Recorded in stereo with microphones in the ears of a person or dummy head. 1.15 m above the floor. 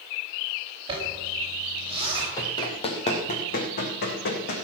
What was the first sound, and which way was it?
A zipper, 30° right (ahead or behind).